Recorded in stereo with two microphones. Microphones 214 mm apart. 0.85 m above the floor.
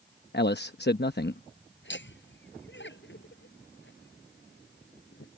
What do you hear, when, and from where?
0.3 s a man speaking: 55° left (ahead or behind)
1.8 s laughter: 60° left (ahead or behind)